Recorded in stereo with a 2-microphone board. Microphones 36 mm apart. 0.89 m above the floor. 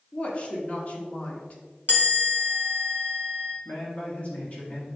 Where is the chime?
50° left (ahead or behind), 1.5 m.